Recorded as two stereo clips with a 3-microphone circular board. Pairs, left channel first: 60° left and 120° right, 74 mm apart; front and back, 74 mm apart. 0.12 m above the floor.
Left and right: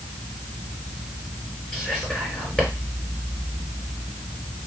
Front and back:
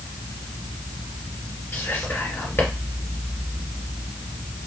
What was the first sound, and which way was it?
Whispering, 5° left.